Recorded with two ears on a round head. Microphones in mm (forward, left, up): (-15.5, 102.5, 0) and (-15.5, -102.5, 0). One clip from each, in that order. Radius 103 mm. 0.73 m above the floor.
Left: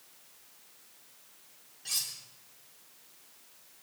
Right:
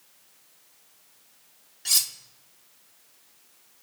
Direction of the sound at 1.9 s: 45° right (ahead or behind).